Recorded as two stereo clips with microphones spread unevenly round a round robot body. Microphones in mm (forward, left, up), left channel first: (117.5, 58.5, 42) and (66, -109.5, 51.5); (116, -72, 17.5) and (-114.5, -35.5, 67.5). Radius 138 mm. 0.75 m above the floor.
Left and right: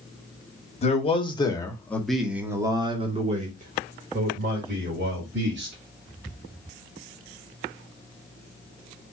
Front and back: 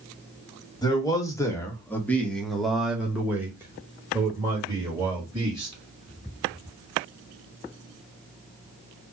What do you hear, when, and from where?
0.8 s a man speaking: 45° left, 1.2 m; by 5.7 s 110° right, 2 m